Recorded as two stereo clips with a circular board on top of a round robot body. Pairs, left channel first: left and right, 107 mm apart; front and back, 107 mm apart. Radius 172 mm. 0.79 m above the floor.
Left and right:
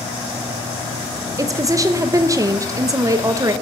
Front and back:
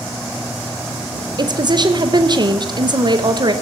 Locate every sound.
1.4 s a woman speaking: 140° right, 1.0 m